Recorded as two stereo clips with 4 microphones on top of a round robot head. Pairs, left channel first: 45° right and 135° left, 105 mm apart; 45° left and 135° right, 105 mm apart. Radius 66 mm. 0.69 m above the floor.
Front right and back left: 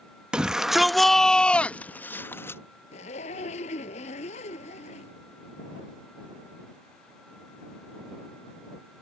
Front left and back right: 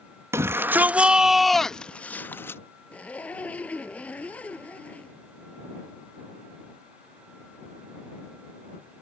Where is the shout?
155° right; by 2.6 s straight ahead.